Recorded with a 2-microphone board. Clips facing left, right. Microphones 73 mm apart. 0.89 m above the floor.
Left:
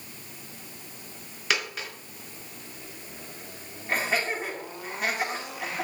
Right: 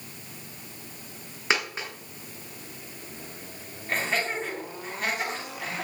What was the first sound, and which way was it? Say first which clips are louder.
A dropped coin: right 2 dB; 25° right (ahead or behind).